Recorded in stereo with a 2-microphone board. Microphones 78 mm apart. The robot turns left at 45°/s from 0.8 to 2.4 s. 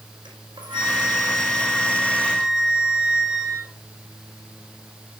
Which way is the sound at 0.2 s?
100° right.